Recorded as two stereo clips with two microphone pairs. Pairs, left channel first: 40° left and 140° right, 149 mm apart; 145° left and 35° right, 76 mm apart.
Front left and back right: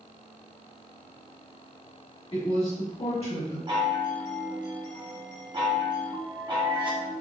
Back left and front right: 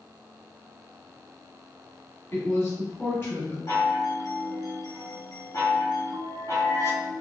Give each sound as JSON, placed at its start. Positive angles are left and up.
{"t": 2.3, "sound": "a woman speaking", "azimuth_deg": 85, "distance_m": 1.5}
{"t": 3.7, "sound": "a chime", "azimuth_deg": 170, "distance_m": 0.8}